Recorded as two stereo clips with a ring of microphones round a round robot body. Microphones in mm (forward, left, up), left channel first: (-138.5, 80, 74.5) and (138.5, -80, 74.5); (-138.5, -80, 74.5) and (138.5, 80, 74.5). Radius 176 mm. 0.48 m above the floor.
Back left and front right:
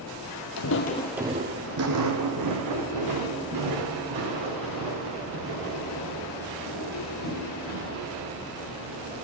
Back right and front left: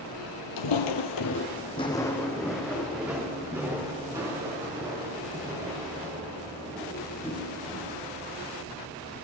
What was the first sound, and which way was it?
Footsteps, 175° right.